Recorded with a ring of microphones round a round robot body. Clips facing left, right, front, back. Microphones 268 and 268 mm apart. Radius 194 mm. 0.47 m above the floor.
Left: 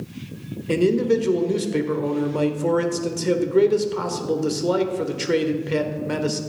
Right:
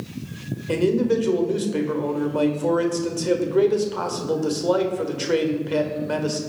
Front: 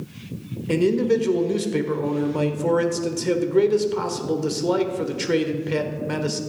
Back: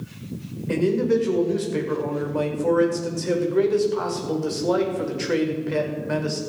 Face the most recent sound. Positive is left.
turn(degrees=35)